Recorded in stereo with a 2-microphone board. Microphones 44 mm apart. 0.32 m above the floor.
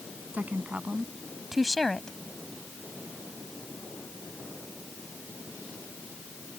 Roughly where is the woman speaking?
Right.